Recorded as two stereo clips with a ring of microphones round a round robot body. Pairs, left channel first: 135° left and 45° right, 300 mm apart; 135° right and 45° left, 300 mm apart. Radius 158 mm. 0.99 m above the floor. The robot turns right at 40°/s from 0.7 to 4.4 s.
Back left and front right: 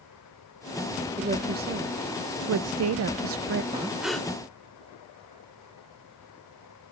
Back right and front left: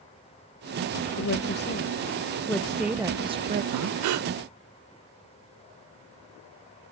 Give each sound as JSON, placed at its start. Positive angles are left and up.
{"t": 1.2, "sound": "a woman speaking", "azimuth_deg": -110, "distance_m": 0.6}
{"t": 3.7, "sound": "breathing", "azimuth_deg": 30, "distance_m": 0.7}